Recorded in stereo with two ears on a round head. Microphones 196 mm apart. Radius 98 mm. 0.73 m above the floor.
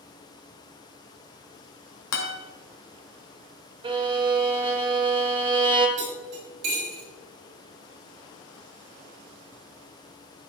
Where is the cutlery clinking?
55° right (ahead or behind), 4.5 m.